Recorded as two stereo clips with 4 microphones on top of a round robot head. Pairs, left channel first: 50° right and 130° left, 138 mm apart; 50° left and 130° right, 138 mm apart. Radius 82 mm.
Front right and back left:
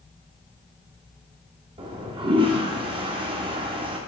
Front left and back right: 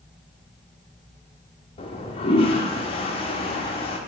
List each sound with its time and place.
1.8 s a toilet flushing: 90° left, 1.1 m